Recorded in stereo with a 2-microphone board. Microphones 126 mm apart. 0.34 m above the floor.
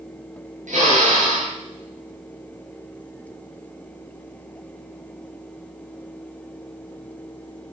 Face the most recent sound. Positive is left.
turn(degrees=-80)